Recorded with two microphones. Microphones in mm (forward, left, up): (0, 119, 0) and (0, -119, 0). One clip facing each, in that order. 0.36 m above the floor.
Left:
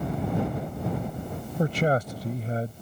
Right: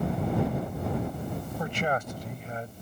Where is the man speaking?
40° left (ahead or behind).